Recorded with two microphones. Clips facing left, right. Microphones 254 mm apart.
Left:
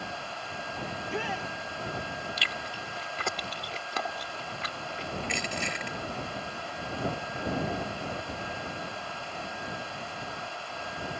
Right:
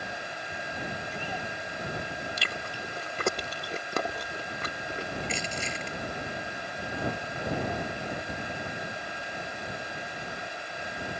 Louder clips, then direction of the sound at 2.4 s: Right 2 dB; 50° right (ahead or behind).